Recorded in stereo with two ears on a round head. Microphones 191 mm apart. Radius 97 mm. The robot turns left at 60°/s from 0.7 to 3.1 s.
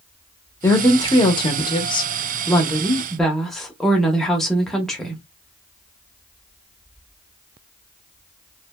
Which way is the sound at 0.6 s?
10° left (ahead or behind).